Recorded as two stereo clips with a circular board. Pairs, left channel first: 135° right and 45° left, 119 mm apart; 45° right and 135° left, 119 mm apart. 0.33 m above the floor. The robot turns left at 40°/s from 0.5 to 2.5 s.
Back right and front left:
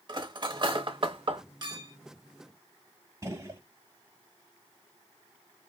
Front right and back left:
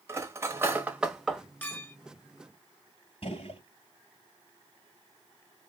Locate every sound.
0.1 s cutlery clinking: 75° left, 0.8 m; by 1.4 s 40° left, 0.8 m
1.6 s a clink: 20° left, 1.0 m; by 1.9 s 5° left, 1.0 m
3.2 s a gunshot: 15° right, 1.0 m